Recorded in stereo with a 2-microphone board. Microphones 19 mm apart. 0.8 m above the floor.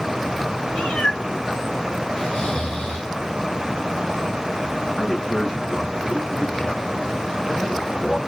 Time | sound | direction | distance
0.7 | a cat meowing | 75° left (ahead or behind) | 2.5 m
2.2 | snoring | 65° left (ahead or behind) | 2.5 m
5.0 | a man speaking | 80° left | 3 m